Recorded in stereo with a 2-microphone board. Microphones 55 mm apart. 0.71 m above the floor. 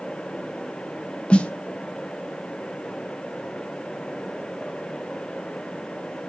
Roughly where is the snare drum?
Centre.